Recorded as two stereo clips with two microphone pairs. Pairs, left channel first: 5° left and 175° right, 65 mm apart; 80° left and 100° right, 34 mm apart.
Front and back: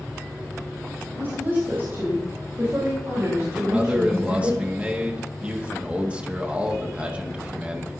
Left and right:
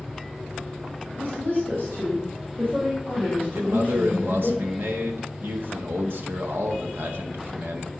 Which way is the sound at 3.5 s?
100° right.